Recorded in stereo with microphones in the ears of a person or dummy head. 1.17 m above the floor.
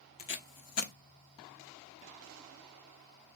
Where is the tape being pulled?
35° left (ahead or behind), 0.8 m.